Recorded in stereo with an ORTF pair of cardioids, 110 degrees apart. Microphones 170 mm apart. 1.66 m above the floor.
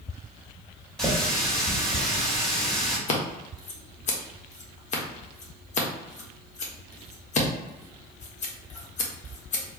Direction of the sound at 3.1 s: 45° left.